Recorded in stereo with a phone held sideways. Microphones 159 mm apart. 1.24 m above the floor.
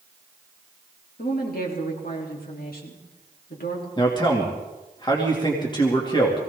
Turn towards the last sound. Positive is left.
turn(degrees=30)  # may be behind; listen again after turning